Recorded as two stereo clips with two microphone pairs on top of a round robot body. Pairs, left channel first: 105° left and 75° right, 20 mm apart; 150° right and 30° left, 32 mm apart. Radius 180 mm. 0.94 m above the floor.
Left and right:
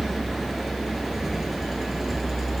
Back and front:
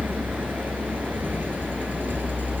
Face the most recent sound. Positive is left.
turn(degrees=10)